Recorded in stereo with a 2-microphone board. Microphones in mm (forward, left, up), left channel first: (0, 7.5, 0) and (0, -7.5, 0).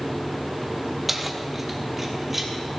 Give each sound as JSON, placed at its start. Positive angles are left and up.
{"t": 1.1, "sound": "keys jangling", "side_deg": -5, "distance_m": 0.8}